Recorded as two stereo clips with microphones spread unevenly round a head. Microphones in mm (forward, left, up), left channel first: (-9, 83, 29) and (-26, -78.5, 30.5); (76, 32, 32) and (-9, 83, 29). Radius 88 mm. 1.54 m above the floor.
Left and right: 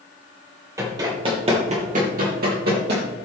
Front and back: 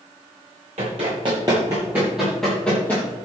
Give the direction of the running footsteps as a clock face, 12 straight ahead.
5 o'clock.